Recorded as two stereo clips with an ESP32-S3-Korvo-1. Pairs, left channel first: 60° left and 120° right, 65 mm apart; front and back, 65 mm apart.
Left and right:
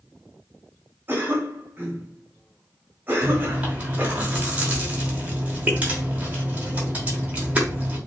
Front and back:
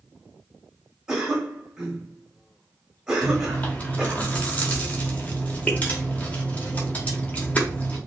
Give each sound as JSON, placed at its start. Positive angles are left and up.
{"t": 1.1, "sound": "a cough", "azimuth_deg": -105, "distance_m": 1.2}
{"t": 3.2, "sound": "chewing", "azimuth_deg": -60, "distance_m": 0.7}